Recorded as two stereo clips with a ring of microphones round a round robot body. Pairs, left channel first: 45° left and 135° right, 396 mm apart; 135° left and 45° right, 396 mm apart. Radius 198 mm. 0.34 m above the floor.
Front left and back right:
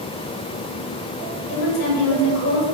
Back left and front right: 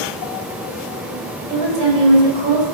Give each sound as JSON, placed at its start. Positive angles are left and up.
{"t": 1.5, "sound": "a woman speaking", "azimuth_deg": 5, "distance_m": 1.7}